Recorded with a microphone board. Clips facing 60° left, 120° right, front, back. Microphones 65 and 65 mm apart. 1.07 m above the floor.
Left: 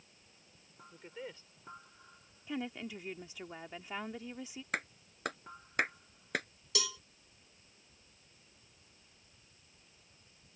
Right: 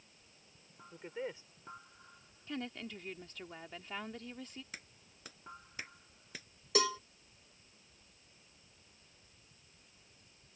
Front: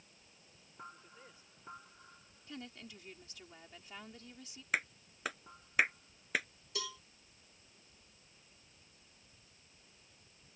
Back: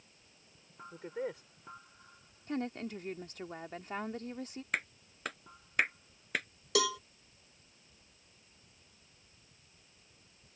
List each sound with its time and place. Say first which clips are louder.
0.9 s a woman speaking: right 5 dB, back 19 dB; 170° left
2.5 s a woman speaking: left 3 dB, back 12 dB; 140° left
4.7 s a clap: left 14 dB, front 1 dB; 90° left
6.8 s a cowbell: right 8 dB, back 14 dB; 175° right